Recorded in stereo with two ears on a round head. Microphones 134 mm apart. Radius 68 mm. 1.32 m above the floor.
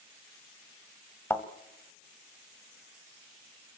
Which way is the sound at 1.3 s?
20° left (ahead or behind).